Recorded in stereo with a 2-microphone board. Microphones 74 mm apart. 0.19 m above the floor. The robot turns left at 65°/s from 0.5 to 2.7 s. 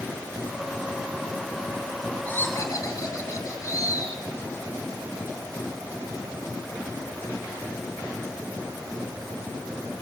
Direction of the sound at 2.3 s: 20° left (ahead or behind).